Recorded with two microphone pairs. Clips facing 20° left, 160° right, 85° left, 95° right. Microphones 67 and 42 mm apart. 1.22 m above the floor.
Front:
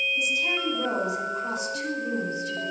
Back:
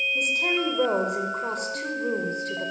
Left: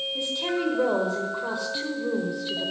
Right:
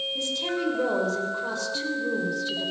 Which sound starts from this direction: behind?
A woman speaking, at 0.1 s.